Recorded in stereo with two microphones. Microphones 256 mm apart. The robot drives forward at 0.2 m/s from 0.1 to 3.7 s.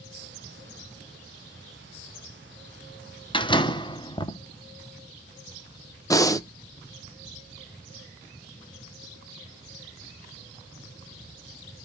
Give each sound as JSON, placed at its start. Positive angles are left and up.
{"t": 3.3, "sound": "a door slam", "side_deg": 20, "distance_m": 0.6}
{"t": 6.1, "sound": "breathing", "side_deg": 15, "distance_m": 0.7}